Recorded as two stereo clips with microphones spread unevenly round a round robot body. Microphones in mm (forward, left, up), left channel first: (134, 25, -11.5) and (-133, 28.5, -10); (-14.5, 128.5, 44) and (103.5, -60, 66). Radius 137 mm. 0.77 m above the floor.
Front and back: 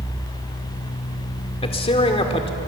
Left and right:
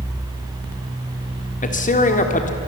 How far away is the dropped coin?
No dropped coin in this recording.